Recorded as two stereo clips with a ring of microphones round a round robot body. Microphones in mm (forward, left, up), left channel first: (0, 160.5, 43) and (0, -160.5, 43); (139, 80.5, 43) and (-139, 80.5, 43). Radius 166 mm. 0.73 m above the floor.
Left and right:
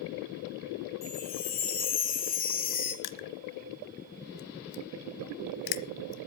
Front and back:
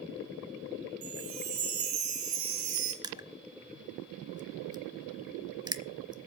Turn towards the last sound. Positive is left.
turn(degrees=105)